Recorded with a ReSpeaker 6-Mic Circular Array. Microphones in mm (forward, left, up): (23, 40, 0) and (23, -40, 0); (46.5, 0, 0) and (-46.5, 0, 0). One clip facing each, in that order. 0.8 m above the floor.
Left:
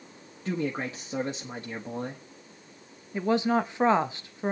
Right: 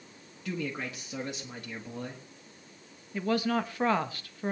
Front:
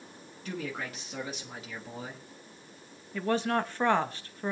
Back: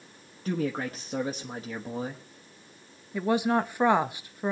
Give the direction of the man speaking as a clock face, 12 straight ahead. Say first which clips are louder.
Left 5 dB, back 7 dB; 7 o'clock.